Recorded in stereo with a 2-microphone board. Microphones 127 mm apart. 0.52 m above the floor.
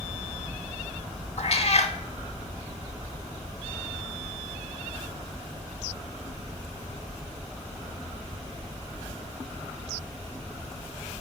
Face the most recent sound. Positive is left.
turn(degrees=55)  # may be behind; listen again after turning